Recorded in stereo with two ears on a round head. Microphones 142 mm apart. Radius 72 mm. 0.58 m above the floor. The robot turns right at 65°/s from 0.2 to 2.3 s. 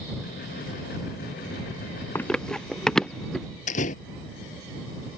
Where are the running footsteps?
15° left (ahead or behind); by 3.5 s centre (ahead or behind).